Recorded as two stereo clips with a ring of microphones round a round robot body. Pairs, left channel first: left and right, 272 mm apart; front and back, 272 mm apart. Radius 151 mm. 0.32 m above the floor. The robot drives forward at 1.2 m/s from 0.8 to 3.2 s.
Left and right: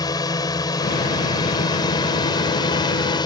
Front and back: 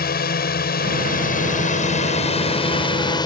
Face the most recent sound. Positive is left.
turn(degrees=45)